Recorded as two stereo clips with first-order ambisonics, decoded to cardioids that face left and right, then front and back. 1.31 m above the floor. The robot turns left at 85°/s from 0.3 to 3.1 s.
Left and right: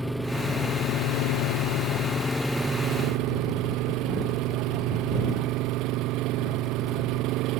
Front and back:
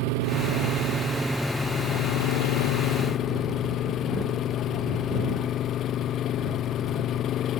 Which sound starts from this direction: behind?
An engine running, at 0.0 s.